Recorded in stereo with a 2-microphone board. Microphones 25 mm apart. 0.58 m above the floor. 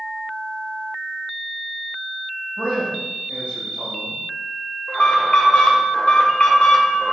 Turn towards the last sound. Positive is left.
turn(degrees=55)  # may be behind; listen again after turning